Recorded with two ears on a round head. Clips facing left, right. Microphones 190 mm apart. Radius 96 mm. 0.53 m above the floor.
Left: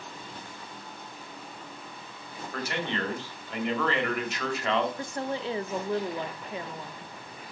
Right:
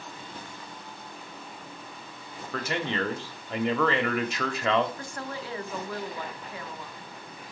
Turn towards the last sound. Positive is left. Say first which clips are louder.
# left 5 dB
turn(degrees=20)  # may be behind; listen again after turning